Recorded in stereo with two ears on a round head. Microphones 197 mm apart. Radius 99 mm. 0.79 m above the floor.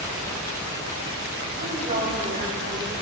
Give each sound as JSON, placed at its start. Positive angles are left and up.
{"t": 1.6, "sound": "a woman speaking", "side_deg": -40, "distance_m": 4.5}